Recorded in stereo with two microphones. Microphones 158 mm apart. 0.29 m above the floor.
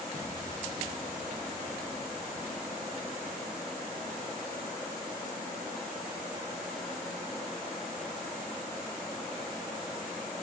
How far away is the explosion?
About 2.5 m.